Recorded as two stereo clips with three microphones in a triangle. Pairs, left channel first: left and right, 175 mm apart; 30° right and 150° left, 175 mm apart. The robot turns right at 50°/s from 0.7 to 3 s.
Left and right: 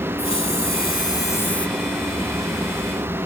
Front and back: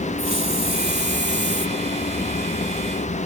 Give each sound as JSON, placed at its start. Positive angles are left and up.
{"t": 0.2, "sound": "a hiss", "azimuth_deg": 120, "distance_m": 0.9}